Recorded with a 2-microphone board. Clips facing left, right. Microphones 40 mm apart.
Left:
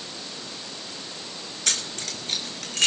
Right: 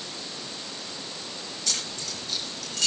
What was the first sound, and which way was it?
Keys jangling, 55° left (ahead or behind).